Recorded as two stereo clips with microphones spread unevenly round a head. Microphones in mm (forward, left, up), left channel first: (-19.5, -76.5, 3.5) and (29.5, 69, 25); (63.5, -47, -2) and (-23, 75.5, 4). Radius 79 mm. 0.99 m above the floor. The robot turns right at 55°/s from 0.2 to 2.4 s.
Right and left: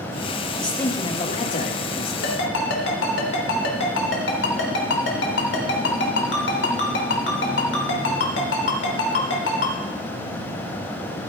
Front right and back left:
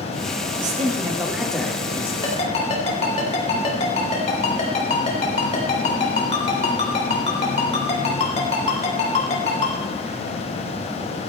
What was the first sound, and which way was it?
A man speaking, 165° left.